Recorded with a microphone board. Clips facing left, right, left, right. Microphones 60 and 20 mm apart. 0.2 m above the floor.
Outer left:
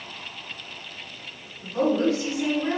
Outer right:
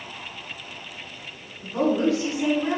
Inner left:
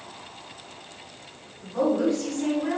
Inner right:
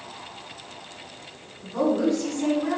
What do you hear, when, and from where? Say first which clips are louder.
1.6 s a woman speaking: even, even; 20° right (ahead or behind), 1.5 m